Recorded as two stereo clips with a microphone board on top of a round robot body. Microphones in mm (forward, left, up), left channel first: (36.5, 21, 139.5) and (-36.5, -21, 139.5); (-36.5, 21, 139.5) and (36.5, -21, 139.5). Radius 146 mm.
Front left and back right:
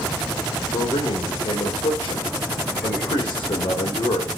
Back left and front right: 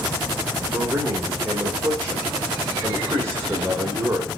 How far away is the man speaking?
About 3 m.